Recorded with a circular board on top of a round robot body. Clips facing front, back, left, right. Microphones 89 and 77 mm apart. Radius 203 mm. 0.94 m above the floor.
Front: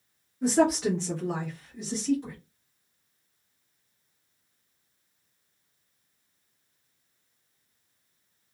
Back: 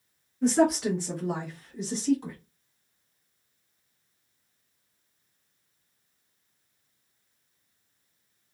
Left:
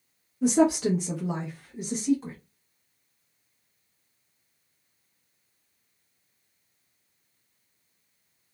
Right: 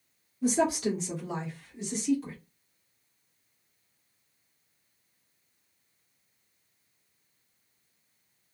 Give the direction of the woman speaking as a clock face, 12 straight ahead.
9 o'clock.